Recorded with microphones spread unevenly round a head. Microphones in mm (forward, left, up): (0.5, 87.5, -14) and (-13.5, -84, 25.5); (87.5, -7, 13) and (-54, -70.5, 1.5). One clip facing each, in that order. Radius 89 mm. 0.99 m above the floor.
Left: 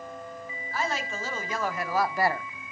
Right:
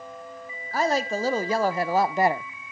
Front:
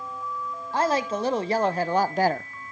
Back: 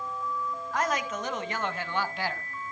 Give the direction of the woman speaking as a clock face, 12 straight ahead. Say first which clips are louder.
Right 8 dB, front 6 dB; 1 o'clock.